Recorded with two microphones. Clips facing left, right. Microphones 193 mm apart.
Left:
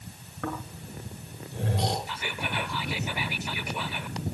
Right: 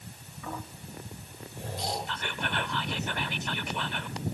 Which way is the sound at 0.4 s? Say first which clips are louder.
Left 5 dB; 65° left (ahead or behind).